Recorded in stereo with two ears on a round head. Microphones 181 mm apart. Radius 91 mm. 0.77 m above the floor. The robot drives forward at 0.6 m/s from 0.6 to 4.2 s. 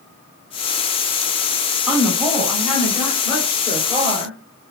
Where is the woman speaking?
Centre (ahead or behind), 1.4 m.